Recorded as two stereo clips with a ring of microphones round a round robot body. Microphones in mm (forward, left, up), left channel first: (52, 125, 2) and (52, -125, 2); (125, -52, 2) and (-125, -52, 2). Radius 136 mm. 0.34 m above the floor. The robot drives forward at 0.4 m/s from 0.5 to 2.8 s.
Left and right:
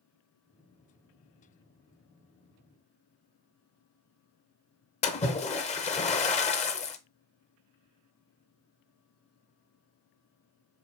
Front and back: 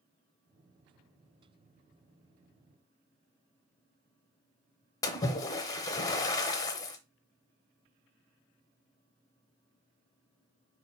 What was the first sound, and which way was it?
A splash, 60° left.